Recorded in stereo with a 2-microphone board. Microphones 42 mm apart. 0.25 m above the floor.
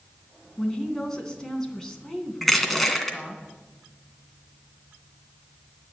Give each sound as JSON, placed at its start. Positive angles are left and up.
{"t": 0.6, "sound": "a woman speaking", "side_deg": 10, "distance_m": 2.5}
{"t": 2.4, "sound": "crushing", "side_deg": 5, "distance_m": 2.0}